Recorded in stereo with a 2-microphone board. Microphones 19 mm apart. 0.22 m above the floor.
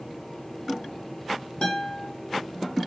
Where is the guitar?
50° left (ahead or behind), 1.6 m.